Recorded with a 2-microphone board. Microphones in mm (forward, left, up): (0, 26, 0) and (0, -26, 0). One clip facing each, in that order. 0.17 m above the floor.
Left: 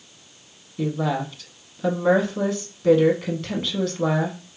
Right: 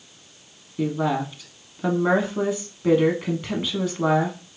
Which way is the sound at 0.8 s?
15° right (ahead or behind).